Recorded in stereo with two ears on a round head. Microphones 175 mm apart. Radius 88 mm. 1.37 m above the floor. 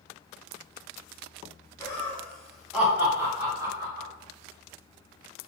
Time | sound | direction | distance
1.8 | laughter | 15° left (ahead or behind) | 1.3 m